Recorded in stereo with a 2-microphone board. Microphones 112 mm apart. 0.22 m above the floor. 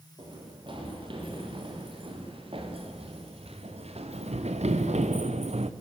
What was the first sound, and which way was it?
Running footsteps, 50° right (ahead or behind).